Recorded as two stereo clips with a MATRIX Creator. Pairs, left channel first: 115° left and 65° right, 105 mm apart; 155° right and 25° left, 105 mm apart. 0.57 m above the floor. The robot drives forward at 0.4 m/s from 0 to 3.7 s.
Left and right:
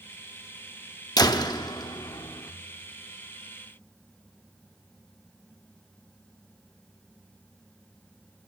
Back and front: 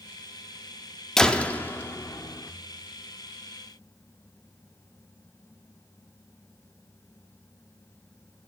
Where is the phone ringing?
No phone ringing in this recording.